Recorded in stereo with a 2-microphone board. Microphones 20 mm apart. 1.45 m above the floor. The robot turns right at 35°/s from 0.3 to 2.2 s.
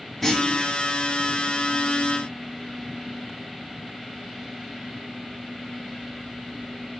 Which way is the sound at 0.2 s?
Centre (ahead or behind).